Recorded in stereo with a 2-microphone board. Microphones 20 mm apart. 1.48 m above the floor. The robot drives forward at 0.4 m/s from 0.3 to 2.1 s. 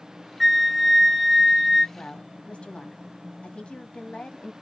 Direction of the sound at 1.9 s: 70° left (ahead or behind).